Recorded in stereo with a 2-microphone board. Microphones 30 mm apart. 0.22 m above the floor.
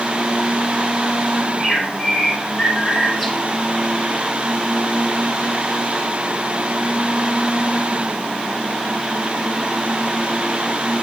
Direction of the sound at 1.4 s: Centre (ahead or behind).